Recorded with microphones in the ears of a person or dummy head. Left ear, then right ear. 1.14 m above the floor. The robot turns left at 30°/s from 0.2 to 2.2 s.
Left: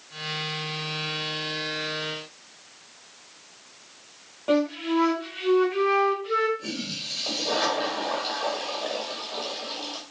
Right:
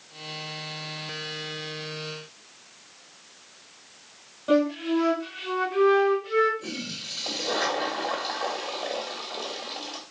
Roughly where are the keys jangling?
No keys jangling in this recording.